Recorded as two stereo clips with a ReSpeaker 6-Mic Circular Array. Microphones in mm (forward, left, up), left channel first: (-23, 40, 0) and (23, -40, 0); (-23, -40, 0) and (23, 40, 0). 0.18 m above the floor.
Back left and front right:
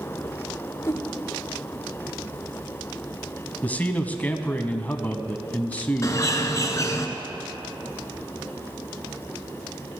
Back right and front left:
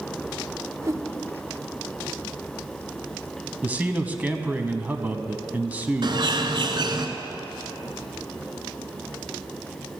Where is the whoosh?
85° left, 1.0 m.